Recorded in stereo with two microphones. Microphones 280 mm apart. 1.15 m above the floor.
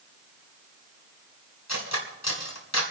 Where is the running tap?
I don't hear a running tap.